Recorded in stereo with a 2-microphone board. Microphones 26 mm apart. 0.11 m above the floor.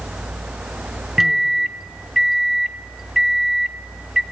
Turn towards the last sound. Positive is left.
turn(degrees=-10)  # may be behind; listen again after turning